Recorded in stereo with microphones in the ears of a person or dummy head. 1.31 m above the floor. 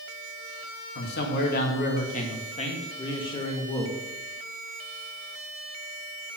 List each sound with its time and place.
0.9 s a man speaking: 60° left (ahead or behind), 2 m; by 3.9 s 15° left (ahead or behind), 2 m